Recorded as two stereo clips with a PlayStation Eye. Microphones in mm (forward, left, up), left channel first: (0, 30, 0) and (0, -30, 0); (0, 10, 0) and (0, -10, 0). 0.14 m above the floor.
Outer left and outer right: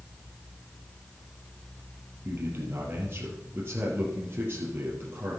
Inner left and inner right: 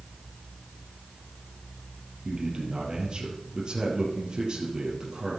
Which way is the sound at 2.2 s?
35° right (ahead or behind).